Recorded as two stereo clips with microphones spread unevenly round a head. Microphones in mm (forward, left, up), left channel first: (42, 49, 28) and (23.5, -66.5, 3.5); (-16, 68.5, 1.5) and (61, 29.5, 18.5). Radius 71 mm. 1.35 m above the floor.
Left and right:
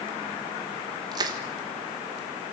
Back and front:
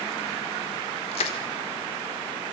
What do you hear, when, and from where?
1.1 s crushing: 165° right, 1.2 m